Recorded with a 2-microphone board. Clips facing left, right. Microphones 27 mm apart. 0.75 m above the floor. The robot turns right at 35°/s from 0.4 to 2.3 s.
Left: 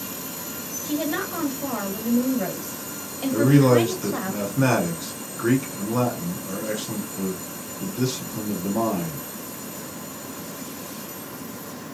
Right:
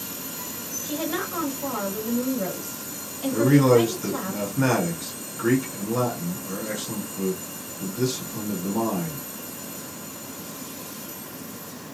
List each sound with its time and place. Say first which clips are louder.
0.8 s a woman speaking: left 3 dB; straight ahead, 1.4 m; by 4.3 s 50° left, 1.4 m
3.3 s a man speaking: even; 5° left (ahead or behind), 1.5 m